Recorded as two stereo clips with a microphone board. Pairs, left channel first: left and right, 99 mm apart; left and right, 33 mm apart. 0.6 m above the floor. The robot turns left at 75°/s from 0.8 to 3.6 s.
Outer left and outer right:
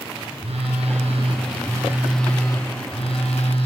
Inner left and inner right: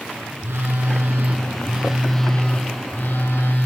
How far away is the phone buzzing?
About 4 m.